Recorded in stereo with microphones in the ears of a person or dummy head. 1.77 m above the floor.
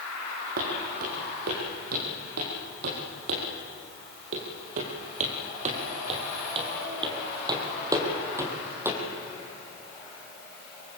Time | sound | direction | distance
0.6 | footsteps | 55° right (ahead or behind) | 4.5 m